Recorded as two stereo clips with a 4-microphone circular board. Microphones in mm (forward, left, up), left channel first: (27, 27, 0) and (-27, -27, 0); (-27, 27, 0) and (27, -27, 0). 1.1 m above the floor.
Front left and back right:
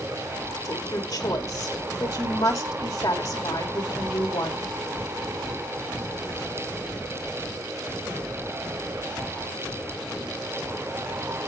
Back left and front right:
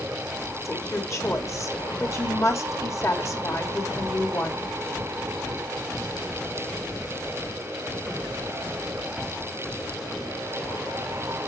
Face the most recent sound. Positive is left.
turn(degrees=90)